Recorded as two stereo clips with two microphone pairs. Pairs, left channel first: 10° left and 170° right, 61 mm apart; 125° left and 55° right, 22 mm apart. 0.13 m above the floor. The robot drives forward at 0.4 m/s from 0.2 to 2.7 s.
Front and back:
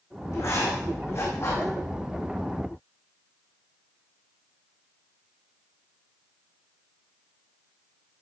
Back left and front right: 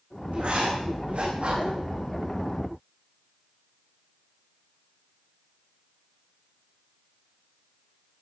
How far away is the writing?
About 8 m.